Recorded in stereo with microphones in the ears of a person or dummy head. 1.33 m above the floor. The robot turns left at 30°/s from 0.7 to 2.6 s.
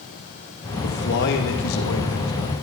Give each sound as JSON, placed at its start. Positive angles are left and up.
{"t": 0.8, "sound": "a man speaking", "azimuth_deg": 130, "distance_m": 2.0}